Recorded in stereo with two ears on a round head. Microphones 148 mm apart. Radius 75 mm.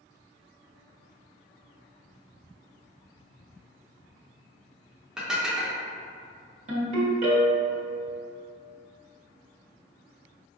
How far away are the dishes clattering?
About 0.6 m.